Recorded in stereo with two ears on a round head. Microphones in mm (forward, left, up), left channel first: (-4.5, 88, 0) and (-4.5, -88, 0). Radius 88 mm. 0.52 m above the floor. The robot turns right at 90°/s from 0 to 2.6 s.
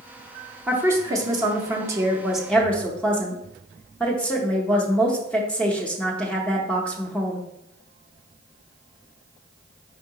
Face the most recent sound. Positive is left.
turn(degrees=5)  # may be behind; listen again after turning